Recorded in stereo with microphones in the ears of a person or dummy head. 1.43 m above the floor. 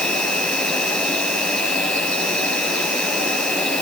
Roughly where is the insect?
Centre.